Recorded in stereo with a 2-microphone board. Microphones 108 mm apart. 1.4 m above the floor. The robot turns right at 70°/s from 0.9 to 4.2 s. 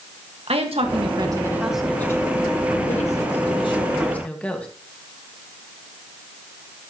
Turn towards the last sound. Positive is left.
turn(degrees=170)